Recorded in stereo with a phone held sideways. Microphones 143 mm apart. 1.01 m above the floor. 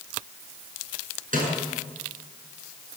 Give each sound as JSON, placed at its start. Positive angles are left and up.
{"t": 1.3, "sound": "a snare drum", "side_deg": -70, "distance_m": 7.0}